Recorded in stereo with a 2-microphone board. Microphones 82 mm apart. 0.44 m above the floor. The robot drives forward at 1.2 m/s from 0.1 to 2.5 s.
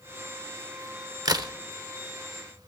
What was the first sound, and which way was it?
A crack, 50° right (ahead or behind).